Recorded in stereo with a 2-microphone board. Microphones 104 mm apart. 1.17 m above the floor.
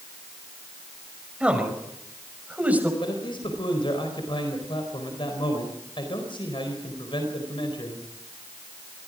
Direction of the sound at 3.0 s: 50° left (ahead or behind).